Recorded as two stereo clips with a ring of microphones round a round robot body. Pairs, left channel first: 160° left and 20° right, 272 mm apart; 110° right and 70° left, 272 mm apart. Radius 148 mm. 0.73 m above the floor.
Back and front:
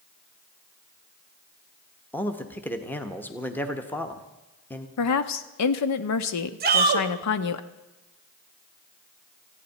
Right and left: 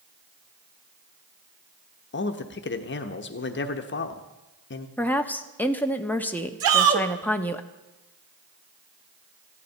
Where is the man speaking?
125° right, 1.1 m.